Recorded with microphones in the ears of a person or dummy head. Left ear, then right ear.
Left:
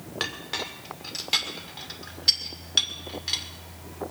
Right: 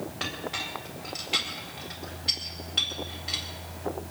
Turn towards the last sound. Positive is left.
turn(degrees=65)  # may be behind; listen again after turning